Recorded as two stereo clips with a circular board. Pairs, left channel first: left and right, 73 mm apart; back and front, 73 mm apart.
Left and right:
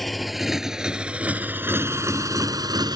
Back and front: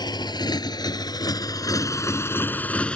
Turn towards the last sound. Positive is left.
turn(degrees=-105)